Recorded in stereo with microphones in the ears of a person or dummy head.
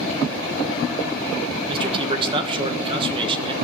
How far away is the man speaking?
About 1.3 m.